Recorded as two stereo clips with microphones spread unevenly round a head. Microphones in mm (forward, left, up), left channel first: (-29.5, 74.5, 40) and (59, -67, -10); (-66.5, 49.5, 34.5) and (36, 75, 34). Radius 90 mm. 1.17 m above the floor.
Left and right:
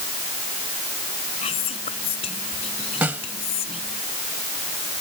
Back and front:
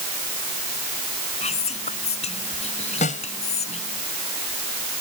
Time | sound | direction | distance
1.4 | whispering | straight behind | ?
3.0 | a snare drum | 140° right | ?